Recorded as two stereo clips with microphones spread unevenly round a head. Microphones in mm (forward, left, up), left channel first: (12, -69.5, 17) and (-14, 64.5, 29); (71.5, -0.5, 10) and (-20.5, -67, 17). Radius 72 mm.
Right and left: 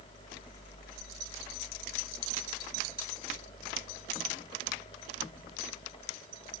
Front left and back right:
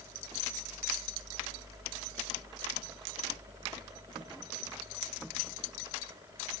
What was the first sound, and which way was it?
Only background noise.